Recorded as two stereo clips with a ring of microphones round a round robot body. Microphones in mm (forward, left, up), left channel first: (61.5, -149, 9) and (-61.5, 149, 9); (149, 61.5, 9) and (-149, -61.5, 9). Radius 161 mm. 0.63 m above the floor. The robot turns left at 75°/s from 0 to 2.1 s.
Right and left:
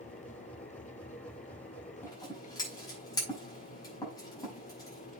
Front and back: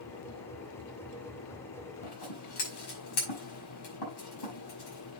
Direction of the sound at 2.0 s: 15° left.